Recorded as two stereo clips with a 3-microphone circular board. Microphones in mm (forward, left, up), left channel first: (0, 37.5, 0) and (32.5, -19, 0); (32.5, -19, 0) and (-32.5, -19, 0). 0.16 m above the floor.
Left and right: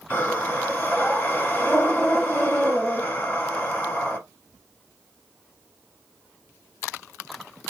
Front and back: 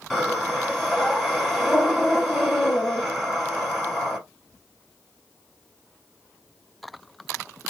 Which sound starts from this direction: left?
Breathing, at 0.1 s.